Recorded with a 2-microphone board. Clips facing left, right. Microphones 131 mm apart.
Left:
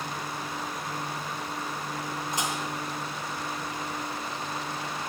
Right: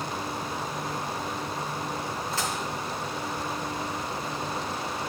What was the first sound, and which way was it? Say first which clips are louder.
Dishes clattering: left 1 dB; 15° left (ahead or behind).